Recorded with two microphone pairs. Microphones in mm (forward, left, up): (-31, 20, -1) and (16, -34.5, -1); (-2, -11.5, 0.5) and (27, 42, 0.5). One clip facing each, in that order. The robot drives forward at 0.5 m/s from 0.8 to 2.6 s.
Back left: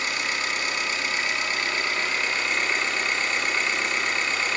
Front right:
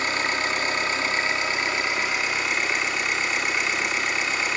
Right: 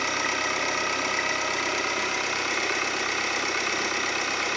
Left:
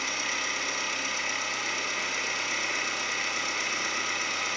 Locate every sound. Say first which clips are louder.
0.0 s an engine running: front right 3 dB, right 5 dB; 95° right, 1.3 m; by 4.6 s 130° right, 1.7 m